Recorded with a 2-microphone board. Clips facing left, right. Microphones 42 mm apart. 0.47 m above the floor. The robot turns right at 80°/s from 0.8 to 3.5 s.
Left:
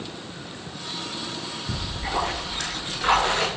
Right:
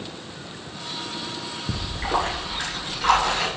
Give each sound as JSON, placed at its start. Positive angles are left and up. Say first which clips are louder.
{"t": 1.7, "sound": "a splash", "louder": "right 4 dB", "azimuth_deg": -90, "distance_m": 3.5}